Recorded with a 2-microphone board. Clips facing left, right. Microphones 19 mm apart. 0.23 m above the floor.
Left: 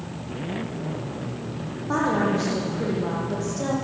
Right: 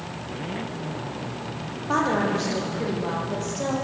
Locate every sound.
1.9 s a woman speaking: 15° right (ahead or behind), 10 m; by 3.8 s 10° right (ahead or behind), 10.5 m